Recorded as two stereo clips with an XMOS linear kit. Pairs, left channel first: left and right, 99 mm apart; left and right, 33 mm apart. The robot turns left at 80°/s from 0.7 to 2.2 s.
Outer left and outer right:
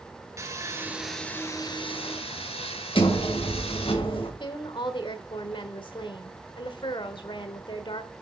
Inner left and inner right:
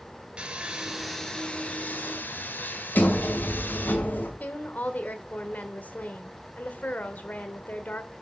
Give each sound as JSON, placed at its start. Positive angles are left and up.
{"t": 0.4, "sound": "sawing", "azimuth_deg": -150, "distance_m": 1.4}
{"t": 3.0, "sound": "a sliding door", "side_deg": 65, "distance_m": 2.5}
{"t": 4.4, "sound": "a woman speaking", "side_deg": 55, "distance_m": 1.4}